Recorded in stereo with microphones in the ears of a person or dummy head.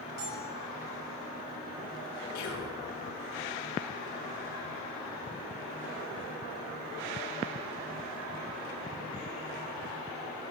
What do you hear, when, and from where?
0.2 s a bell: 55° right (ahead or behind), 7 m
2.4 s whispering: 55° left (ahead or behind), 1.9 m